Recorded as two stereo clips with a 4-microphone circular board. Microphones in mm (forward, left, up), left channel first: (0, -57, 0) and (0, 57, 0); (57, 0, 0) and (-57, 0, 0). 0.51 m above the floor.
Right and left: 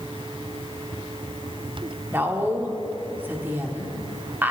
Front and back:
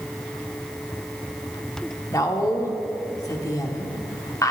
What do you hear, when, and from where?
2.1 s a woman speaking: 30° left, 1.2 m